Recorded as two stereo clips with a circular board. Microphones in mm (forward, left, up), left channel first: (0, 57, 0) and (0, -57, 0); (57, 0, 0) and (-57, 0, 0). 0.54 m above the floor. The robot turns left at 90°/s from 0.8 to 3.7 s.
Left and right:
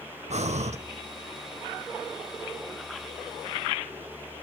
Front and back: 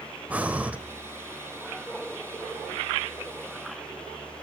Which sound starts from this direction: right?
Breathing, at 0.3 s.